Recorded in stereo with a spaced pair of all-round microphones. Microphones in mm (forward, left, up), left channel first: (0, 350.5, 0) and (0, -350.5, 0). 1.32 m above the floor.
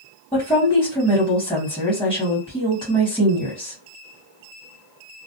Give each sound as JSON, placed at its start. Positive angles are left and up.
{"t": 0.3, "sound": "a woman speaking", "side_deg": 5, "distance_m": 1.2}